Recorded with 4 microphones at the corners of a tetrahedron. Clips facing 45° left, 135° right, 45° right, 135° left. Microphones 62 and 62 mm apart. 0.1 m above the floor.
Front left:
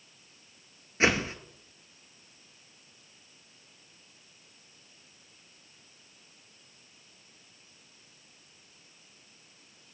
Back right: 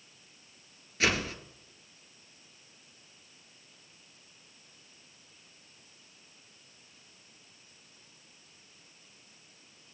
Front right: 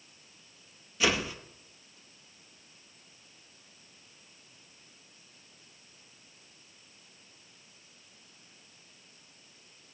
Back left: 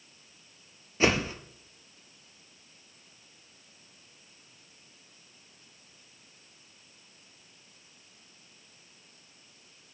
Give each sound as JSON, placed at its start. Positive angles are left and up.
{"t": 1.0, "sound": "a whoosh", "azimuth_deg": 100, "distance_m": 0.7}